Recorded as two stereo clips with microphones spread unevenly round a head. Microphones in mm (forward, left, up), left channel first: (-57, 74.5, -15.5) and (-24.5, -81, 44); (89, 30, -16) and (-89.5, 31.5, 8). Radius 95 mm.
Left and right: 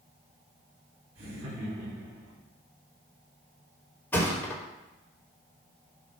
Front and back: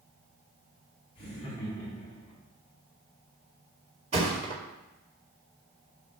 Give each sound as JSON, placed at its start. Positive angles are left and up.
{"t": 1.1, "sound": "laughter", "azimuth_deg": -65, "distance_m": 4.5}
{"t": 4.1, "sound": "a thud", "azimuth_deg": -160, "distance_m": 1.9}